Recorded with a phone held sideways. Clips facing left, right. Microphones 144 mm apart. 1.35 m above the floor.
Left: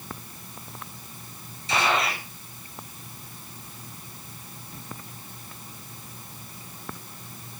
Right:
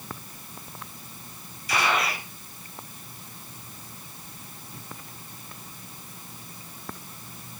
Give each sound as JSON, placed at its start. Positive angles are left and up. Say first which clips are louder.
{"t": 1.7, "sound": "a gunshot", "louder": "left 1 dB", "side_deg": 25, "distance_m": 5.0}